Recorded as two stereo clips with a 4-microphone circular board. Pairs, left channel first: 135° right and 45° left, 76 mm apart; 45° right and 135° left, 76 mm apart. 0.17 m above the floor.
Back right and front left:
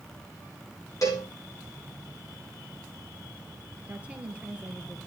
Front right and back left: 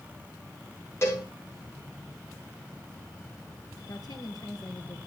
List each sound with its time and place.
1.0 s a cowbell: 100° right, 7.5 m
3.9 s a woman speaking: 25° right, 3 m